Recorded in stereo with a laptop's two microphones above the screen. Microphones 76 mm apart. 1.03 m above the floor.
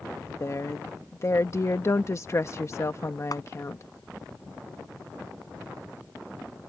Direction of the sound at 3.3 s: 55° left (ahead or behind).